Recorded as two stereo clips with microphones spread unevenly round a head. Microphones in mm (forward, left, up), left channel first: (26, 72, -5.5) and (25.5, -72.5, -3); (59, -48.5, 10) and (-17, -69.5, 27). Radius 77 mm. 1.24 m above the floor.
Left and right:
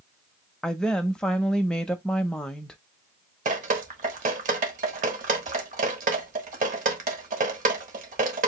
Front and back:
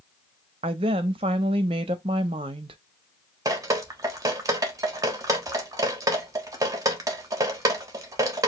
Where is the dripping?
125° right, 1.2 m.